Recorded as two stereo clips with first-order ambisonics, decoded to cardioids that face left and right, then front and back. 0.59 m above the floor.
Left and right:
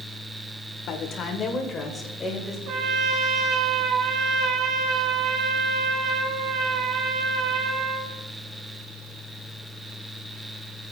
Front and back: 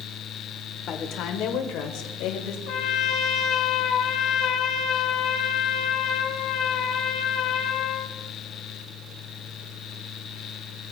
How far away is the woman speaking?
About 1.8 m.